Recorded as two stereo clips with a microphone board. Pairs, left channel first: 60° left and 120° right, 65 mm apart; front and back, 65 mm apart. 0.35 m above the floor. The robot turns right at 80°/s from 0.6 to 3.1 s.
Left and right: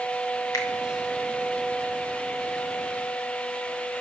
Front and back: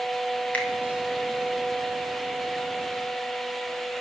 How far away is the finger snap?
About 1.9 m.